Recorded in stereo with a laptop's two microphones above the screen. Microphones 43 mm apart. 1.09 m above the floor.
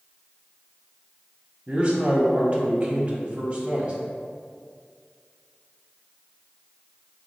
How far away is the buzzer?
I don't hear a buzzer.